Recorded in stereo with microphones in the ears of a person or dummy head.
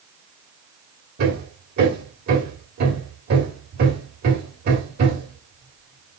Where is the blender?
No blender in this recording.